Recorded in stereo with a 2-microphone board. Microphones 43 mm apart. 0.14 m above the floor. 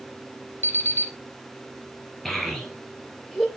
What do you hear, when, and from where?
0.6 s an alarm clock: 60° left (ahead or behind), 2 m
2.2 s a child speaking: 5° left (ahead or behind), 2 m